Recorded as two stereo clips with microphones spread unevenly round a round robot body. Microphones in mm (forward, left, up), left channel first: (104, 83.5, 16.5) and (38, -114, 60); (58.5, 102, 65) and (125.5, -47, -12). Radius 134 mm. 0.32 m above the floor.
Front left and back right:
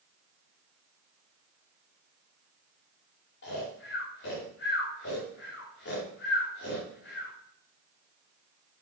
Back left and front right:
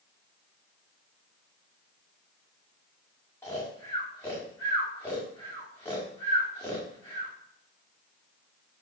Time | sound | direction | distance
3.4 | snoring | 40° left | 8 m